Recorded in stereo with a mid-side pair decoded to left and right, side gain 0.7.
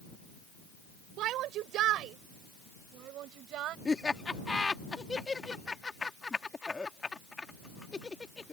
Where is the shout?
55° right.